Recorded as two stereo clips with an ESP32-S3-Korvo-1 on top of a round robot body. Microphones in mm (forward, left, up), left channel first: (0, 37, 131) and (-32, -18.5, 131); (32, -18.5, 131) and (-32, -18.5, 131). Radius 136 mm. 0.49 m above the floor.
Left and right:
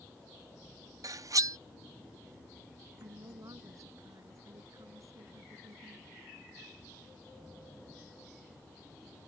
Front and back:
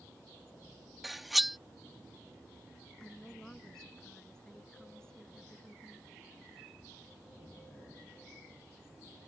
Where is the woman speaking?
80° right.